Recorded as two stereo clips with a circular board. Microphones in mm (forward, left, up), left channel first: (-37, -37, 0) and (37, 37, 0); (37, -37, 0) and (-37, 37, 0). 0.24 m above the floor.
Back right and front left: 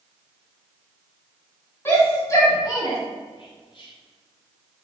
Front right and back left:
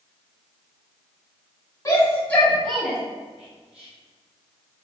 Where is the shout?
80° right, 1.7 m; by 3.0 s 145° right, 1.8 m.